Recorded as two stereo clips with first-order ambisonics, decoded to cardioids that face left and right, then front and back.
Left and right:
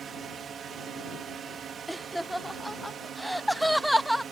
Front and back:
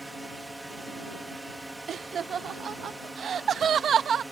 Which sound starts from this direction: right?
A drone, at 0.0 s.